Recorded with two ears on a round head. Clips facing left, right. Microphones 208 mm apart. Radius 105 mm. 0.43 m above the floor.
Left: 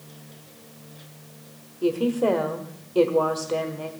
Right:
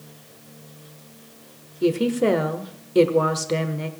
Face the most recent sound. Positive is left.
turn(degrees=-30)  # may be behind; listen again after turning